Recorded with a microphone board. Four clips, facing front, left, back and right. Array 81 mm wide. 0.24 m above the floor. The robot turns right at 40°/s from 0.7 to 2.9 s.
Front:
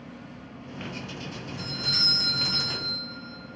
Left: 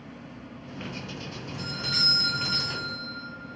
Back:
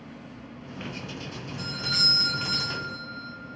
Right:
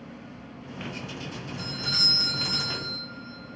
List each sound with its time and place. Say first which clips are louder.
1.6 s a doorbell: left 3 dB, back 4 dB; 150° left, 1.8 m; by 3.6 s 155° right, 1.8 m